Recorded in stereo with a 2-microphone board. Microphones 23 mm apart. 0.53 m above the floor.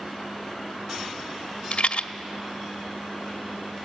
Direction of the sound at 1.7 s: 55° left (ahead or behind).